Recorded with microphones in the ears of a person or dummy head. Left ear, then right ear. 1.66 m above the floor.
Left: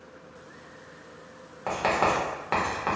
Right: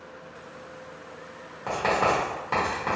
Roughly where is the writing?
Left.